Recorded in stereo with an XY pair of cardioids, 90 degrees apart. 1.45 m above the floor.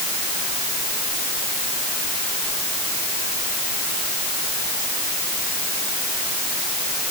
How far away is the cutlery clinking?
I don't hear cutlery clinking.